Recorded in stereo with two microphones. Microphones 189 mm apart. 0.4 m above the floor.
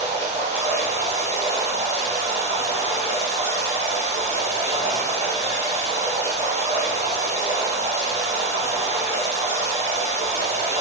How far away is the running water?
About 2.5 m.